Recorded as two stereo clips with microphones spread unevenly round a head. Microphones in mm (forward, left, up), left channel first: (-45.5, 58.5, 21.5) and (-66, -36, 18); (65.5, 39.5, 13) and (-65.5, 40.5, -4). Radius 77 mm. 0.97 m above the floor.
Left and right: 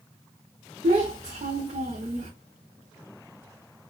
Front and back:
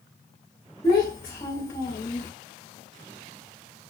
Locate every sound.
0.8 s a child speaking: 60° right, 0.6 m